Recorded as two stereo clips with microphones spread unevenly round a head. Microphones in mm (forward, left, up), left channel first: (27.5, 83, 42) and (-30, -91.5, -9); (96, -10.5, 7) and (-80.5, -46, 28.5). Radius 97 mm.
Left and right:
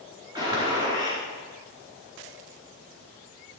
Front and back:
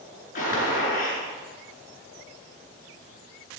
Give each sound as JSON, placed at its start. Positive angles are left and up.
{"t": 0.3, "sound": "a gunshot", "azimuth_deg": -35, "distance_m": 3.5}